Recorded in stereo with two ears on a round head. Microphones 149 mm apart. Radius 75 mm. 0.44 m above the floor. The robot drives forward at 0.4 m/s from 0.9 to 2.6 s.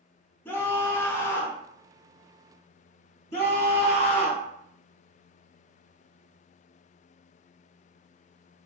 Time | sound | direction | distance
0.5 | a scream | 15° left (ahead or behind) | 0.8 m
3.3 | a scream | 40° left (ahead or behind) | 1.1 m